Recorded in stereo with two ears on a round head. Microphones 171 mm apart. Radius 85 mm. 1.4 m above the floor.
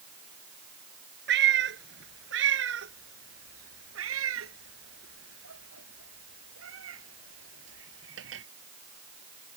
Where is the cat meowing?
60° right (ahead or behind); by 8.4 s 75° right (ahead or behind).